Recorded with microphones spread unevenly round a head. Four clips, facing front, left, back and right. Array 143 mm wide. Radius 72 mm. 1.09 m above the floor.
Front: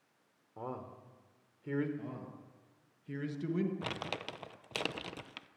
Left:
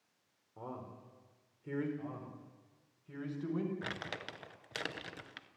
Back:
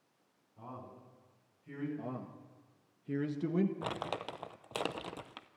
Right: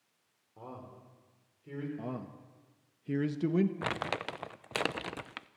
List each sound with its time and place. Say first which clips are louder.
0.6 s a man speaking: left 1 dB, front 5 dB; 5° left, 4 m; by 1.9 s 20° left, 4.5 m
2.0 s a man speaking: right 5 dB, back 2 dB; 95° right, 1.5 m
3.8 s crumpling: right 8 dB, back 2 dB; 100° right, 0.6 m